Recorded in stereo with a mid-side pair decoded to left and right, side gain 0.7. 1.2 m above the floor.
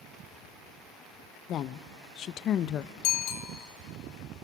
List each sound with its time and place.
1.5 s a woman speaking: 45° left, 0.7 m
3.0 s a bicycle bell: 65° left, 2 m